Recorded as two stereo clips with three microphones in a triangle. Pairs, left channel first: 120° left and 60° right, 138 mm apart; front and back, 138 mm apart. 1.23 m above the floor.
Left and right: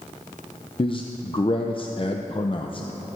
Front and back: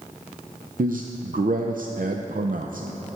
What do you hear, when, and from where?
0.8 s a man speaking: 175° left, 0.5 m